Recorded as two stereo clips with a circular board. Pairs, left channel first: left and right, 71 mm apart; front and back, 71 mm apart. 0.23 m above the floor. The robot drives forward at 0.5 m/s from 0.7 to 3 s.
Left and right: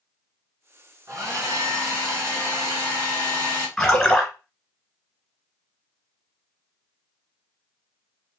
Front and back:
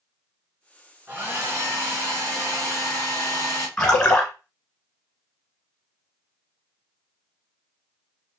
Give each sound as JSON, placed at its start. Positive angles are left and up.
{"t": 1.1, "sound": "a hair dryer", "azimuth_deg": -125, "distance_m": 1.2}
{"t": 3.8, "sound": "a splash", "azimuth_deg": 50, "distance_m": 1.3}